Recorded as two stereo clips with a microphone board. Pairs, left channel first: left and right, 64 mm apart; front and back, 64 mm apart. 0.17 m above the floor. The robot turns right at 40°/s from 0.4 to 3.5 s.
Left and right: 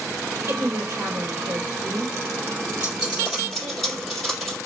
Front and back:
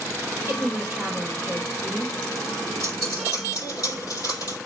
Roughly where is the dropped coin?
Ahead right.